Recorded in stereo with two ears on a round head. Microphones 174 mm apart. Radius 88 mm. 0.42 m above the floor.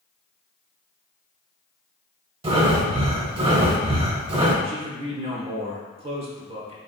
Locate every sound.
2.4 s breathing: 30° right (ahead or behind), 0.7 m
4.6 s a man speaking: 35° right (ahead or behind), 1.0 m